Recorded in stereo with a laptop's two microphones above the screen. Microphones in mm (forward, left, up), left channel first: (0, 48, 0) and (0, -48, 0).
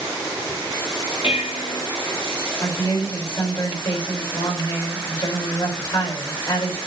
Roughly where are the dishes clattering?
Left.